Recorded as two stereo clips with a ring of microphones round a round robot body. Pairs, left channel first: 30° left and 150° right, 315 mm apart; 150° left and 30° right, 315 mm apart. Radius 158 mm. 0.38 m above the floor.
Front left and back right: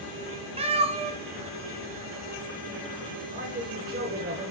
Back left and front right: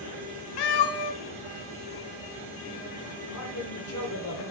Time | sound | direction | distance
0.6 | a cat meowing | 135° left | 1.1 m
3.3 | a man speaking | 155° left | 1.7 m